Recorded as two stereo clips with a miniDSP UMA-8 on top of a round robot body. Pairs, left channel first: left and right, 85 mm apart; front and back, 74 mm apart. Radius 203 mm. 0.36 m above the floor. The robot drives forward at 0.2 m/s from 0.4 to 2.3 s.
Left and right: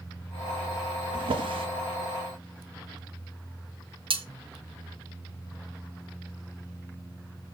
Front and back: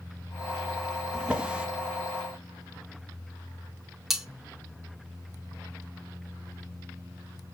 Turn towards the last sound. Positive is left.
turn(degrees=-90)